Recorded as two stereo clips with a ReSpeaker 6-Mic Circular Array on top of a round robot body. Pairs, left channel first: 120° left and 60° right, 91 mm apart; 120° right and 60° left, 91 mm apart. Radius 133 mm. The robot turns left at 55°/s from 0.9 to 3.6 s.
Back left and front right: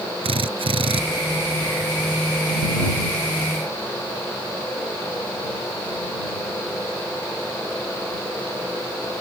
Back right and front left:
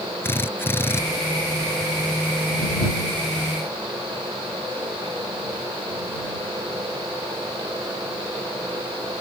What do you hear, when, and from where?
0.2 s a drill: 55° right; by 1.0 s 65° right